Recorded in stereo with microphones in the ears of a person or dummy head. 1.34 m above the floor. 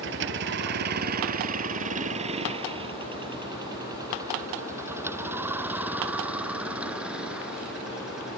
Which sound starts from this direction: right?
A vehicle, at 0.0 s.